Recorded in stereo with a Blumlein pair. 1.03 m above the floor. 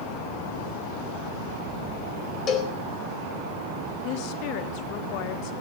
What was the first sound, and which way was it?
A cowbell, 25° left.